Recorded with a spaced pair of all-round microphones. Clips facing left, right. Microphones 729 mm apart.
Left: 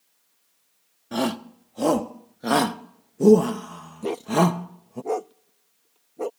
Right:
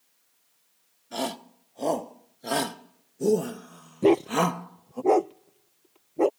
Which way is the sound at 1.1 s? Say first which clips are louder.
Left 8 dB; 70° left (ahead or behind).